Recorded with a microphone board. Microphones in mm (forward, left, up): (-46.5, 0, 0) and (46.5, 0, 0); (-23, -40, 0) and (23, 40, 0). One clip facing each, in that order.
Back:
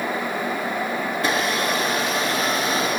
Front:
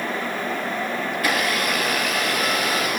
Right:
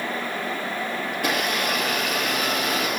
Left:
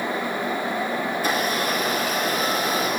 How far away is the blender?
About 4 m.